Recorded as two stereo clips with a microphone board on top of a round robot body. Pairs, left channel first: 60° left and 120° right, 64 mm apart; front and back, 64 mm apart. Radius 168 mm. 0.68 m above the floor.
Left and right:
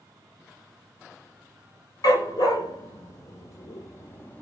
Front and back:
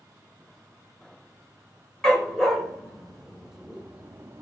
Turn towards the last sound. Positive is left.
turn(degrees=130)